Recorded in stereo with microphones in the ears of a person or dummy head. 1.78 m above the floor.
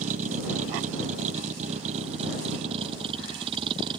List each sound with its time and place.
0.0 s a vehicle: 45° right (ahead or behind); by 4.0 s 30° right (ahead or behind)